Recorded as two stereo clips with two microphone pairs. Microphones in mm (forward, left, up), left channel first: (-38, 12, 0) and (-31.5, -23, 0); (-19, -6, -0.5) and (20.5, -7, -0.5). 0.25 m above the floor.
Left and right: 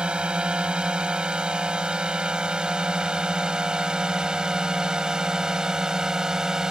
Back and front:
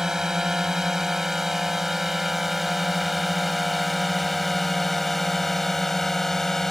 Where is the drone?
65° right; by 6.7 s 120° right.